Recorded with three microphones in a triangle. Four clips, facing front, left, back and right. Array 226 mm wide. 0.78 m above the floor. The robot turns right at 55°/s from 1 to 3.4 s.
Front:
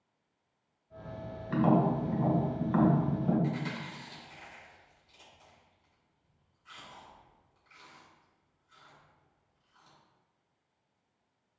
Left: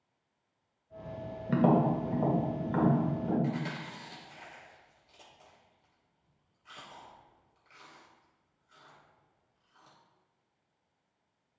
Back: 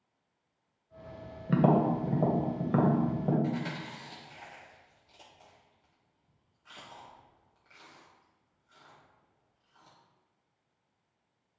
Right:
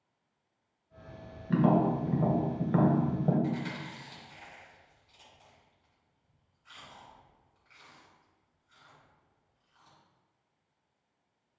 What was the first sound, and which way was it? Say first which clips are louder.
Tapping: even, back 1 dB; 145° left.